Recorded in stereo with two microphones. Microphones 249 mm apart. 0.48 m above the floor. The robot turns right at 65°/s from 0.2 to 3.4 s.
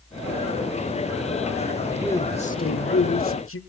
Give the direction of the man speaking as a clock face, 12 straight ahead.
12 o'clock.